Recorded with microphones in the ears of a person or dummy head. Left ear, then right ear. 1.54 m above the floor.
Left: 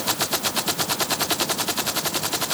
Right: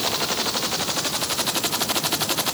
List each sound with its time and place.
Only background noise.